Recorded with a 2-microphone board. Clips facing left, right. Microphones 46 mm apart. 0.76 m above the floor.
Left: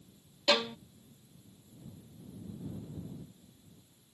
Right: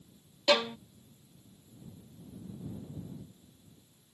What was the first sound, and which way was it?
A violin, 15° right (ahead or behind).